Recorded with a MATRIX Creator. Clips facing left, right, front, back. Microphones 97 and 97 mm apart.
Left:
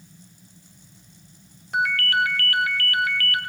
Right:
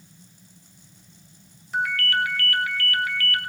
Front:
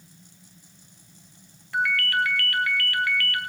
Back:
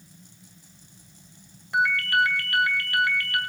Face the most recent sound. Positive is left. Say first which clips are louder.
# left 2 dB, back 2 dB
turn(degrees=110)